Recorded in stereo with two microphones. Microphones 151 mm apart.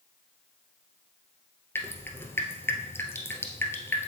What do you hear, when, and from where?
1.8 s dripping: 15° left (ahead or behind), 1.4 m